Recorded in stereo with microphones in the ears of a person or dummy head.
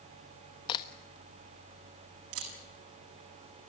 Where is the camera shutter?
85° right, 7.5 m.